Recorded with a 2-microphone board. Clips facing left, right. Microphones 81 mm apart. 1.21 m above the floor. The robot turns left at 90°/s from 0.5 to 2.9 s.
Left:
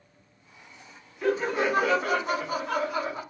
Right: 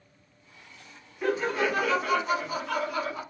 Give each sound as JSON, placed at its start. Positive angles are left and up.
{"t": 1.2, "sound": "laughter", "azimuth_deg": -175, "distance_m": 0.8}